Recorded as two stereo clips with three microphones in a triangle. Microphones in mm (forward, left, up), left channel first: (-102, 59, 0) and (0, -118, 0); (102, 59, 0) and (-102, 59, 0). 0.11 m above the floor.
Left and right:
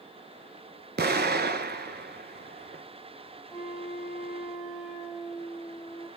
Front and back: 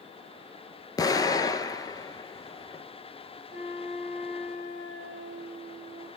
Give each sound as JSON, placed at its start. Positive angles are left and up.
{"t": 1.0, "sound": "an explosion", "azimuth_deg": -65, "distance_m": 0.6}
{"t": 3.5, "sound": "a flute", "azimuth_deg": -165, "distance_m": 3.0}